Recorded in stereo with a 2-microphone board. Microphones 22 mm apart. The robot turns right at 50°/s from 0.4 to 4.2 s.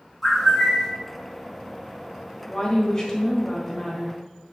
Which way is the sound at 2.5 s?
20° left (ahead or behind).